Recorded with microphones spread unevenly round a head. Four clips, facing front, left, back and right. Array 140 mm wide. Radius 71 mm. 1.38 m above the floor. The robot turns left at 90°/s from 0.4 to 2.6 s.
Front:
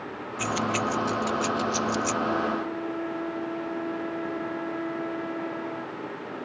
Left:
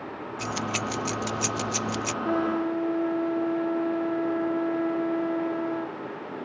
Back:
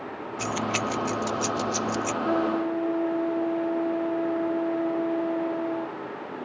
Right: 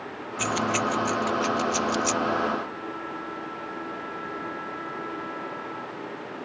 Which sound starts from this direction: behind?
A trumpet, at 2.2 s.